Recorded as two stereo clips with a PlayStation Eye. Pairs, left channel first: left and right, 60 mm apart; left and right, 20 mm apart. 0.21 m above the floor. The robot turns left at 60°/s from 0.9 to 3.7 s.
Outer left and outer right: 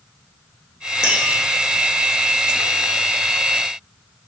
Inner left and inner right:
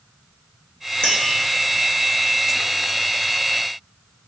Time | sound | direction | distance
1.0 | tapping | 50° left (ahead or behind) | 0.9 m